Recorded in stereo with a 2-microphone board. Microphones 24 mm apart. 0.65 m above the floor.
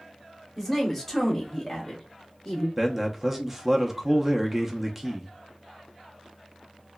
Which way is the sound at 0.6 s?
5° right (ahead or behind).